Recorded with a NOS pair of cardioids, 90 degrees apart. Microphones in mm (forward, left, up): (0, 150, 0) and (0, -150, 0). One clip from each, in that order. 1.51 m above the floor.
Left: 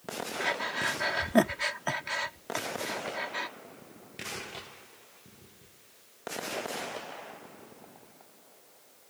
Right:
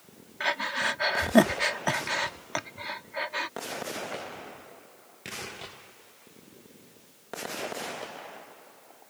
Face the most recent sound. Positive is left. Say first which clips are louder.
# right 3 dB
turn(degrees=-25)